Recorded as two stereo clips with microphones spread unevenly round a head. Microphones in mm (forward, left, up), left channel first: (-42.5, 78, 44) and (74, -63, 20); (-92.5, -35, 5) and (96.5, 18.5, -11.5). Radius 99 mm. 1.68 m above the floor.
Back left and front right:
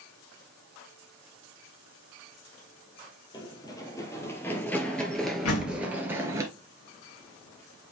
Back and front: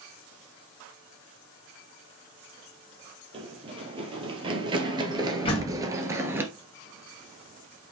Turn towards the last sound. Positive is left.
turn(degrees=135)